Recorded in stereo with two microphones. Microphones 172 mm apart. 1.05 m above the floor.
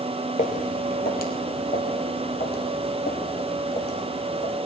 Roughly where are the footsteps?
Left.